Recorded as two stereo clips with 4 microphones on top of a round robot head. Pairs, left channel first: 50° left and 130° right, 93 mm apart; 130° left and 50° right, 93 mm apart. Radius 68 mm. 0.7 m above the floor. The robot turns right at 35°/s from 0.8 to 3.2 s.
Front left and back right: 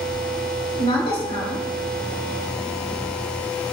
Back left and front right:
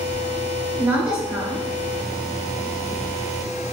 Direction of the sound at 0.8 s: 20° left.